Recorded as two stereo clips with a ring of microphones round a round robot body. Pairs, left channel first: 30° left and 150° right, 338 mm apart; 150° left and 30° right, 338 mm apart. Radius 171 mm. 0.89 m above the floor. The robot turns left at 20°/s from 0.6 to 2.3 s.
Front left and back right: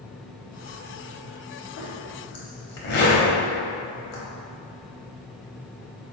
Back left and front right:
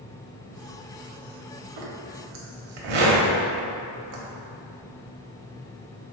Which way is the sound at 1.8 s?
15° right.